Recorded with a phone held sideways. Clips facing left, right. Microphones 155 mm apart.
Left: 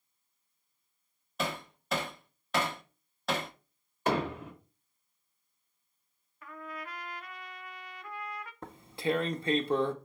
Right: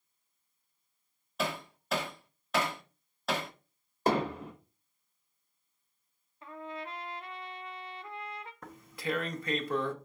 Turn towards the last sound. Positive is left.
turn(degrees=30)  # may be behind; listen again after turning